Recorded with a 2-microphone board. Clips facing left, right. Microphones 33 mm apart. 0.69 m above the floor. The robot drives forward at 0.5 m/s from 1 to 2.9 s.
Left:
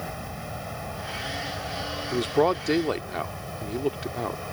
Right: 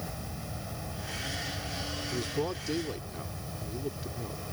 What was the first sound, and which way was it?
An aircraft, 30° left (ahead or behind).